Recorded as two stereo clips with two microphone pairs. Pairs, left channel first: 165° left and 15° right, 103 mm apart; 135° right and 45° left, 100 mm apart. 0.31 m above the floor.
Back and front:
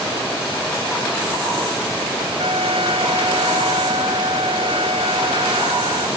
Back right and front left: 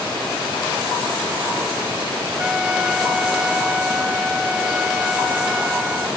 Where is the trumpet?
35° right.